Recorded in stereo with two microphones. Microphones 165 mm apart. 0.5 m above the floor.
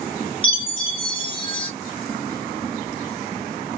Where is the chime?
30° left (ahead or behind), 1.0 m.